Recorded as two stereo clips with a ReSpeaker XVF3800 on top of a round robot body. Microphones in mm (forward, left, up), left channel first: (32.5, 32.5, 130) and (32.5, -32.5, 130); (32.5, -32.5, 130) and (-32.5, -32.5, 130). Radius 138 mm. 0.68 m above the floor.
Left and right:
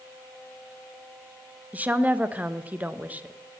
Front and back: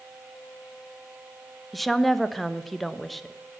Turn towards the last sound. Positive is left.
turn(degrees=-85)